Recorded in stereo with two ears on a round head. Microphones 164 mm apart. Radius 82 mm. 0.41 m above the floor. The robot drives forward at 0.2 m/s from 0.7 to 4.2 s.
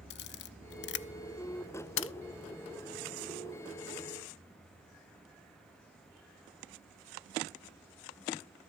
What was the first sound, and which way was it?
A camera shutter, 60° left (ahead or behind).